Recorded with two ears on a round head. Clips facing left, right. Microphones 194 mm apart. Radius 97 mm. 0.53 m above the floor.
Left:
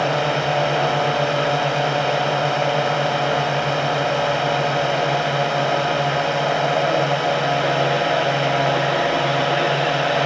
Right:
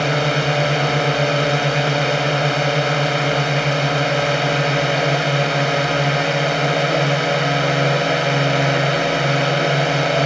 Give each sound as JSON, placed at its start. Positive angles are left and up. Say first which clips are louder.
{"t": 0.0, "sound": "a drone", "louder": "right 1 dB", "side_deg": -30}